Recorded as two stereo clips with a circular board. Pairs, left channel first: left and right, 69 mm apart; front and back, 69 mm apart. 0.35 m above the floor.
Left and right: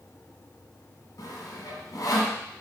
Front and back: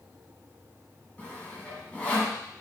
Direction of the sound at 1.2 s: 70° left.